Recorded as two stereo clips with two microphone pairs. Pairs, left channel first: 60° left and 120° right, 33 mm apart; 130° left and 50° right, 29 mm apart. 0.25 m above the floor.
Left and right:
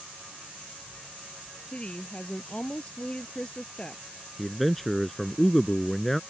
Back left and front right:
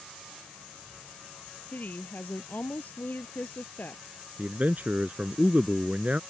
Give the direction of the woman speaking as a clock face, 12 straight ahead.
8 o'clock.